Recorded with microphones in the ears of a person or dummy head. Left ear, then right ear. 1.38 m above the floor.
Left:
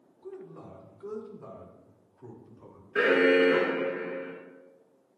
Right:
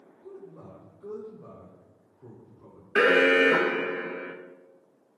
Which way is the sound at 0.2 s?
65° left (ahead or behind).